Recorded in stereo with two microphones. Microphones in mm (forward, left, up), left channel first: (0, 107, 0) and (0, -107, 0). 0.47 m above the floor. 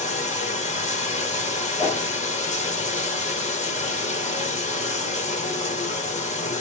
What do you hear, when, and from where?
0.0 s running water: 30° left (ahead or behind), 0.9 m
1.8 s a whoosh: 15° left (ahead or behind), 2.5 m